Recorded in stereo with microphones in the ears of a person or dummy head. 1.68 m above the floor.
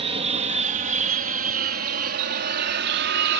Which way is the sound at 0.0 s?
35° right (ahead or behind).